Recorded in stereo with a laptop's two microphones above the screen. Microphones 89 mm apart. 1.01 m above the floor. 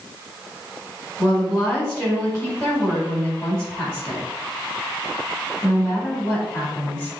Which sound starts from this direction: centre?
A woman speaking, at 1.2 s.